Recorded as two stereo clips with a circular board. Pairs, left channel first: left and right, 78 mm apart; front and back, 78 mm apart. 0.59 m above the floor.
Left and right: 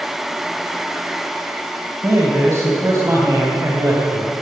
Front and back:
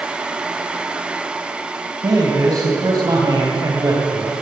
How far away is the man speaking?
About 3.5 m.